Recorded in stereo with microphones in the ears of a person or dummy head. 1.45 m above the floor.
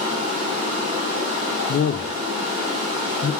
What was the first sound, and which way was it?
Running water, 30° right (ahead or behind).